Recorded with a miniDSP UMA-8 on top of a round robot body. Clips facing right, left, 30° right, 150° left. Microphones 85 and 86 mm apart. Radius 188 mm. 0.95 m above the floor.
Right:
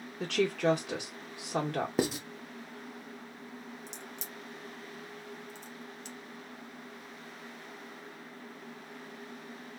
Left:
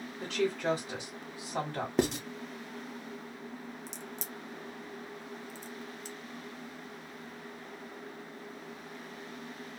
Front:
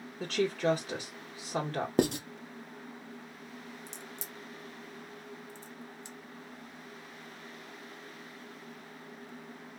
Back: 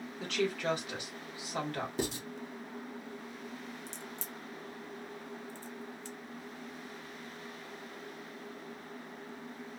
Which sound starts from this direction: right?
A woman speaking, at 0.2 s.